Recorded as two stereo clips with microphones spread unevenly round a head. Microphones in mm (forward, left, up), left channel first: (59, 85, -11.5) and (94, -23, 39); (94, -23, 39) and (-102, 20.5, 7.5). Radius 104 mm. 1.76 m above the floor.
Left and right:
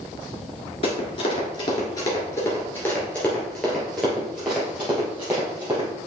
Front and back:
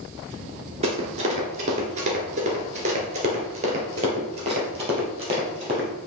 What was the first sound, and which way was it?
Running footsteps, 145° left.